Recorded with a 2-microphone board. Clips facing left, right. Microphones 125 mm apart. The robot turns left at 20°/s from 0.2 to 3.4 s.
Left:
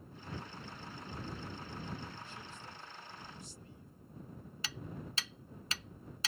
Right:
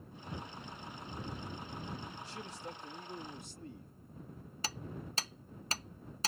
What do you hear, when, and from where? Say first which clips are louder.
2.2 s a man speaking: right 4 dB; 85° right; by 3.9 s 60° right (ahead or behind)
4.6 s hammering: right 2 dB; 40° right (ahead or behind)